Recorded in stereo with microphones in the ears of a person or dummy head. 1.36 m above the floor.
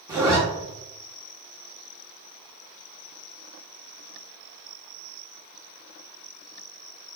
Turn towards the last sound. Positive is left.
turn(degrees=-15)  # may be behind; listen again after turning